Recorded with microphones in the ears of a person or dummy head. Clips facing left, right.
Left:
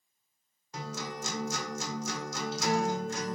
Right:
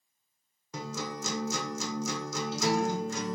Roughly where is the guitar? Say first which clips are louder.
Right 2 dB; right.